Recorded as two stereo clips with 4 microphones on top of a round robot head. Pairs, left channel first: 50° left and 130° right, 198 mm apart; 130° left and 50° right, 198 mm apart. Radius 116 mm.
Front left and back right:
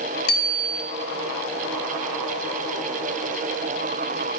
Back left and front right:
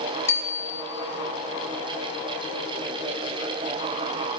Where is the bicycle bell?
55° left, 3 m.